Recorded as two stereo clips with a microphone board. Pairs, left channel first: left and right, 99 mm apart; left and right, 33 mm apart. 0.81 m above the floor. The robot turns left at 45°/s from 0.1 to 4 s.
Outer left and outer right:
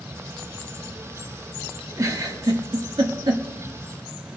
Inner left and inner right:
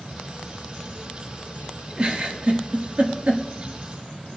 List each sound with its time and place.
2.0 s a giggle: 35° right (ahead or behind), 1.2 m; by 3.4 s 50° right (ahead or behind), 1.2 m